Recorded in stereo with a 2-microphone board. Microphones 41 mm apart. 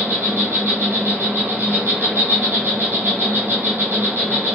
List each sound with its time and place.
0.0 s an insect: 75° right (ahead or behind), 1.3 m